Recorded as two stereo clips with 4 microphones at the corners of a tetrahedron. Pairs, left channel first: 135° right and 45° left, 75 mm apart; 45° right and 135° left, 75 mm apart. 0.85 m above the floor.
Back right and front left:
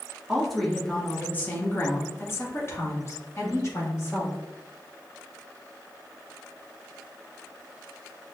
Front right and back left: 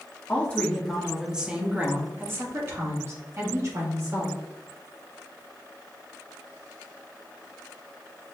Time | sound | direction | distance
0.3 | a woman speaking | 40° right | 0.9 m